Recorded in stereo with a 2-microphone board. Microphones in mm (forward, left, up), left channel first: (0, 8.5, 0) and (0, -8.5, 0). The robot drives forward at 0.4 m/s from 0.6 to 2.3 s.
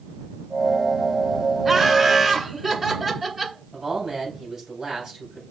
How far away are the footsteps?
No footsteps in this recording.